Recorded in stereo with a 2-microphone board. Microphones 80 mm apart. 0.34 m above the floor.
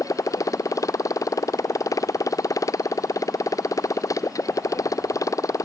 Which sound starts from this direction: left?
A motorcycle, at 0.0 s.